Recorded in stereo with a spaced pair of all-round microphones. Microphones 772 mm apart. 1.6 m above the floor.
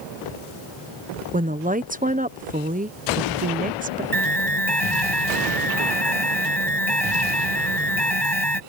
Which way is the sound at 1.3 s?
10° right (ahead or behind).